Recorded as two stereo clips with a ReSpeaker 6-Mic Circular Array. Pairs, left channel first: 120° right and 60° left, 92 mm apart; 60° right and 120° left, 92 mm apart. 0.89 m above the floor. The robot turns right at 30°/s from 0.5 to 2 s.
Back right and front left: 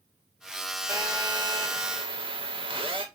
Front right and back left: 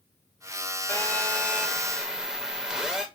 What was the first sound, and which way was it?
A phone buzzing, 5° left.